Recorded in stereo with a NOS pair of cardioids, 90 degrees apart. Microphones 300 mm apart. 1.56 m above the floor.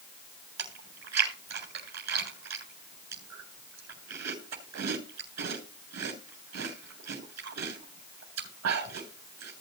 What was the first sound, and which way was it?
Chewing, 60° right.